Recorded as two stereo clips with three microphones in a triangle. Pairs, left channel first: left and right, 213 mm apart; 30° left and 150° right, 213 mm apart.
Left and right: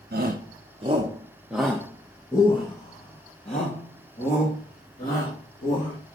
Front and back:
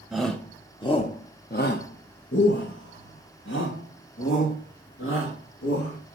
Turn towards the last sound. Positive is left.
turn(degrees=45)